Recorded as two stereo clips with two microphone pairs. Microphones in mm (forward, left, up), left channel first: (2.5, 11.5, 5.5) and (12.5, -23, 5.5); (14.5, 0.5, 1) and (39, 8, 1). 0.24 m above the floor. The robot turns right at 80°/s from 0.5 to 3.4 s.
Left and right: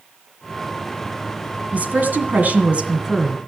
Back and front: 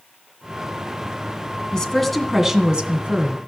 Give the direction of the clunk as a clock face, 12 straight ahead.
No clunk in this recording.